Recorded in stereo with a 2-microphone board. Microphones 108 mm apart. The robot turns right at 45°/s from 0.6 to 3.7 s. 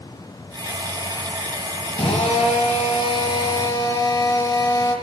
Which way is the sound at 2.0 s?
70° left.